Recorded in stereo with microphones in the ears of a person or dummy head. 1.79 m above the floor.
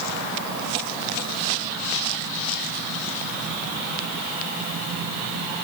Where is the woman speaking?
I don't hear a woman speaking.